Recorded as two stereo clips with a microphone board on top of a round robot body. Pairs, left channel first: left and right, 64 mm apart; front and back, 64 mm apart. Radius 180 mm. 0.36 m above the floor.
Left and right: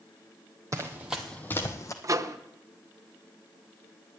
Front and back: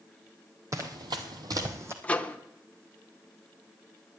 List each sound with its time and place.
0.7 s running footsteps: 135° right, 0.9 m; by 1.9 s 130° left, 1.3 m
2.0 s a microwave: 65° right, 1.0 m